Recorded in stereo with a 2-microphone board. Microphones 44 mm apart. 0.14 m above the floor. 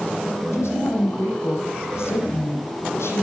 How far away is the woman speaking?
About 7 m.